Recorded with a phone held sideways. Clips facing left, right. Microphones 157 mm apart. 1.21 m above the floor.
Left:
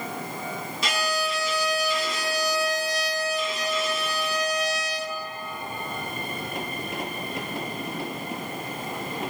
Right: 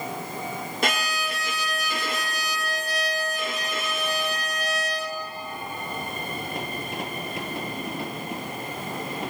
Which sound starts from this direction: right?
A violin, at 0.8 s.